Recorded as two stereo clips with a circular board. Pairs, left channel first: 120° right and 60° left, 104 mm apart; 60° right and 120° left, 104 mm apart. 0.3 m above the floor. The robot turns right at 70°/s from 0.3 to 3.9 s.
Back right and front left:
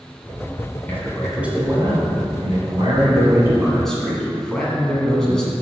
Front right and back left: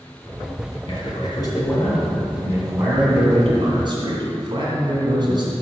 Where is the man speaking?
55° right, 2 m; by 5.5 s 155° left, 2 m.